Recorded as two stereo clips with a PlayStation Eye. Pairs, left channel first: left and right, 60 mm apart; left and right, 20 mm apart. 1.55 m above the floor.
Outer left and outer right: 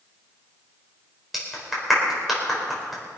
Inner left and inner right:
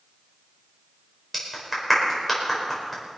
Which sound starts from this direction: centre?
A clap, at 1.3 s.